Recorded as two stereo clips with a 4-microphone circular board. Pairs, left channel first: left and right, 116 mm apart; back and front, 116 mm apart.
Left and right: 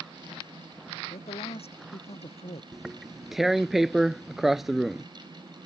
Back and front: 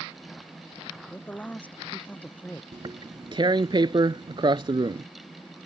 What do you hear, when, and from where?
1.1 s a man speaking: 105° left
2.7 s tearing paper: 5° right